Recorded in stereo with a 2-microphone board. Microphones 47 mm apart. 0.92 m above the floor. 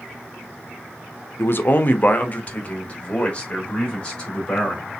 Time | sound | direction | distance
1.4 | a man speaking | 55° left (ahead or behind) | 0.6 m